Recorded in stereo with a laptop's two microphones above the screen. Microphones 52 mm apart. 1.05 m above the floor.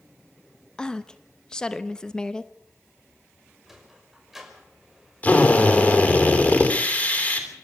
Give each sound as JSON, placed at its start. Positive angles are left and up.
{"t": 0.8, "sound": "a woman speaking", "side_deg": 15, "distance_m": 1.0}
{"t": 3.7, "sound": "a sliding door", "side_deg": -5, "distance_m": 5.5}
{"t": 5.2, "sound": "a drill", "side_deg": 35, "distance_m": 3.0}